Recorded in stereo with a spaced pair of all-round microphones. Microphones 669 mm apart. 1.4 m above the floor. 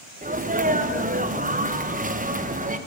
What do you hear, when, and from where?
0.2 s a sneeze: 10° right (ahead or behind), 0.8 m